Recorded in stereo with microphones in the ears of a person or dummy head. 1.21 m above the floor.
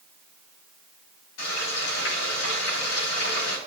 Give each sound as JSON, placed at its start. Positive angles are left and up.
{"t": 1.4, "sound": "frying", "side_deg": 65, "distance_m": 3.5}